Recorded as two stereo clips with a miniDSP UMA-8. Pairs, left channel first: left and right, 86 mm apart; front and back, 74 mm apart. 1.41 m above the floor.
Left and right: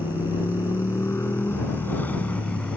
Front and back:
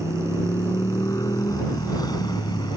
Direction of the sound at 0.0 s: 45° left.